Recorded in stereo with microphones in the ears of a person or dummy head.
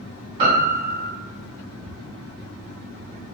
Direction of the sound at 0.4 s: 45° right (ahead or behind).